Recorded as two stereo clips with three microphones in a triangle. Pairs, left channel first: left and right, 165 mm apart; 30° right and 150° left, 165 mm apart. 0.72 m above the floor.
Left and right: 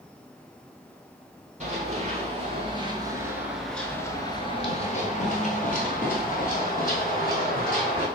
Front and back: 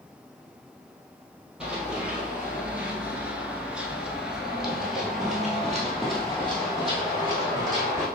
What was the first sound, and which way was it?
Running footsteps, 125° right.